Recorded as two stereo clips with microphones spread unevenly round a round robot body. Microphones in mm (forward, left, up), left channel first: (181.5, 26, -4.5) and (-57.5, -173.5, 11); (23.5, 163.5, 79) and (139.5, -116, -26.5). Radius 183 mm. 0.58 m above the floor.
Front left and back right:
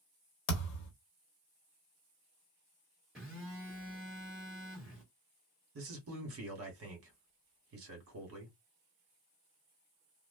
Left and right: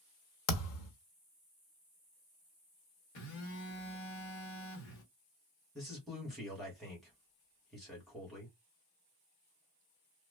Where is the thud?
70° left, 0.8 m.